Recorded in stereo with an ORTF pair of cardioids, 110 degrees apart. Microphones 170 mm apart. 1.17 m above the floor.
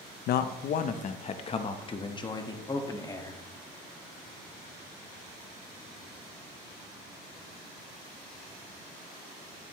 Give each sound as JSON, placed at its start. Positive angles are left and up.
{"t": 0.3, "sound": "a man speaking", "azimuth_deg": 70, "distance_m": 0.7}